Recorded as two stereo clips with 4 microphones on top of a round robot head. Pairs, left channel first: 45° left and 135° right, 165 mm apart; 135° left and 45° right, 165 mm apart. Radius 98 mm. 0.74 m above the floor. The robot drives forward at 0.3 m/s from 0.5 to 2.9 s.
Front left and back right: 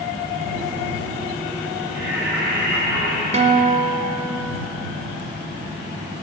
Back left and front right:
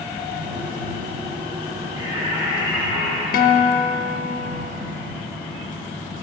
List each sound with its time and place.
1.9 s singing: 110° right, 2 m; by 3.2 s 115° right, 2 m
3.3 s a guitar: 170° left, 0.5 m